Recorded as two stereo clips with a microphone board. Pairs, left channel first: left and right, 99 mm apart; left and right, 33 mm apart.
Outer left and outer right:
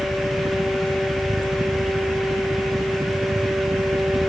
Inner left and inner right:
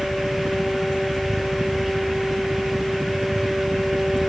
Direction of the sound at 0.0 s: 30° right (ahead or behind).